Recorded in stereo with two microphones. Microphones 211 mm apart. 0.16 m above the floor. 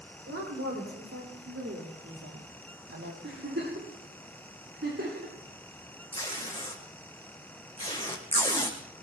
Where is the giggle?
65° right (ahead or behind), 8 m.